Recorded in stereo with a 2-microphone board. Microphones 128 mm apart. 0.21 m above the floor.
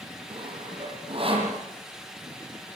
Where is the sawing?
45° right (ahead or behind), 7 m.